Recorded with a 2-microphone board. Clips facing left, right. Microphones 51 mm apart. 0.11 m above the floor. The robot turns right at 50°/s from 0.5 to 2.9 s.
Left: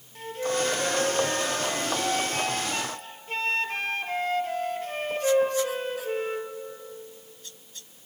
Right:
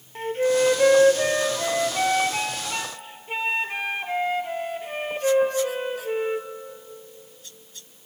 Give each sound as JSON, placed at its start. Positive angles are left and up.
{"t": 0.1, "sound": "a flute", "azimuth_deg": -135, "distance_m": 1.7}